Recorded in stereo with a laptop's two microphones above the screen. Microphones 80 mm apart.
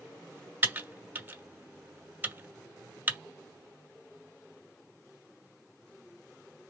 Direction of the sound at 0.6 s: 25° right (ahead or behind).